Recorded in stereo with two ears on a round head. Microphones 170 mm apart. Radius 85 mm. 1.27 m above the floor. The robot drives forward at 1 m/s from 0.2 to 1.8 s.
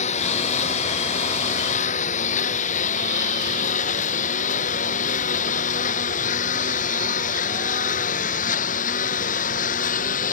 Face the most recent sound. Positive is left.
turn(degrees=45)  # may be behind; listen again after turning